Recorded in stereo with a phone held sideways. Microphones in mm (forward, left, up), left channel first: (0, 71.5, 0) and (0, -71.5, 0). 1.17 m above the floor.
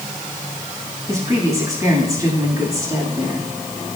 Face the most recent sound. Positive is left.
turn(degrees=-25)  # may be behind; listen again after turning